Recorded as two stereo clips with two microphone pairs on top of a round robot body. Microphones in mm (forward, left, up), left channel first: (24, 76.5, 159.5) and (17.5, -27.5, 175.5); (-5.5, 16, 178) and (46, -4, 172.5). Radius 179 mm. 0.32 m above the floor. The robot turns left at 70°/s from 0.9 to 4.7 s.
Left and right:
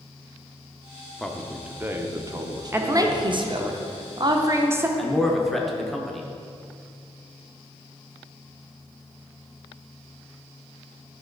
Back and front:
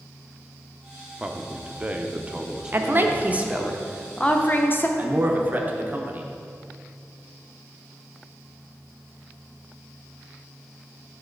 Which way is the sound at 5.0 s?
10° left.